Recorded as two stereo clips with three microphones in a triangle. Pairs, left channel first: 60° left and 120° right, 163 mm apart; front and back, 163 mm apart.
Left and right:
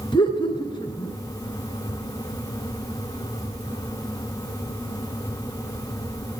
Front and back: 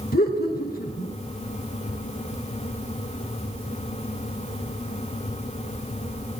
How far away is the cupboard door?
I don't hear a cupboard door.